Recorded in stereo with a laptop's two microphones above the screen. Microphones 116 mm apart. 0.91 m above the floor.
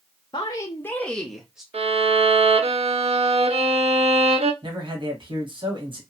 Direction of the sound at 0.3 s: 40° left (ahead or behind).